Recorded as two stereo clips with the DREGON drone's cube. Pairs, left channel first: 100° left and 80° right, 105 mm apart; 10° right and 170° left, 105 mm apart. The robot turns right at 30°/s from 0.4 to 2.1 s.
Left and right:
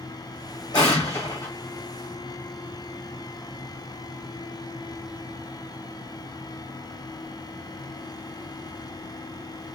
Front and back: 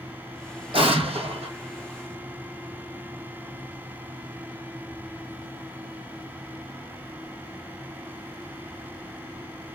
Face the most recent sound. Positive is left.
turn(degrees=-175)